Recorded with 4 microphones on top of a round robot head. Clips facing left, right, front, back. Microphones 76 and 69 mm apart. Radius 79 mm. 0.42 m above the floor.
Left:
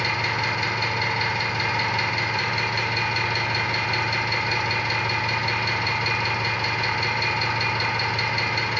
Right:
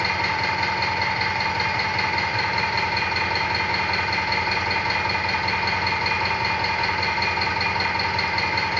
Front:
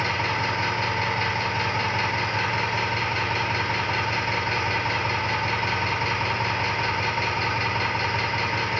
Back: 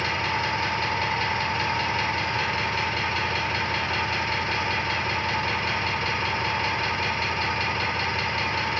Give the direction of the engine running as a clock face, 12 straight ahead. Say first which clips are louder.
Right 2 dB, front 1 dB; 2 o'clock.